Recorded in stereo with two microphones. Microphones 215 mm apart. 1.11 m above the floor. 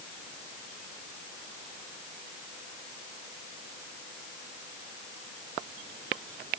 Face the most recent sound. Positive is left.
No sound to turn to.